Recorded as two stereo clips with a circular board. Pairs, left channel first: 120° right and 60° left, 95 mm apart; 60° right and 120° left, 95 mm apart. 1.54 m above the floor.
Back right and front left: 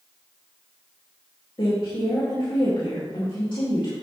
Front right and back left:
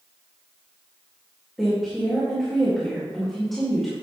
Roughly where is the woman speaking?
Behind right.